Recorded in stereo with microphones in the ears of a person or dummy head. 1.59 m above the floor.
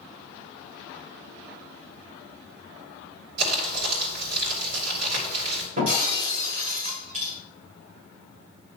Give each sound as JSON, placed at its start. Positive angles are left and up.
{"t": 3.4, "sound": "crumpling", "side_deg": -65, "distance_m": 2.5}
{"t": 5.8, "sound": "breaking glass", "side_deg": -45, "distance_m": 3.5}